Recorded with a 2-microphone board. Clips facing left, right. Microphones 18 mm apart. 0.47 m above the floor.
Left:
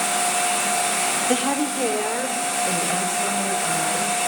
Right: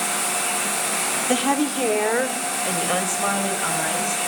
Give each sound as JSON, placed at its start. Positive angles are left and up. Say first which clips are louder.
{"t": 1.3, "sound": "a woman speaking", "louder": "right 1 dB", "side_deg": -15, "distance_m": 1.2}